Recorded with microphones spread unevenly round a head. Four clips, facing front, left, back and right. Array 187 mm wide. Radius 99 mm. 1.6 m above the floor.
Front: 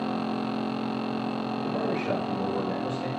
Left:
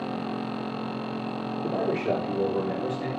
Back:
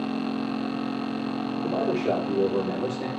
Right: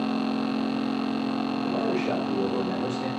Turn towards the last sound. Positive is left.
turn(degrees=170)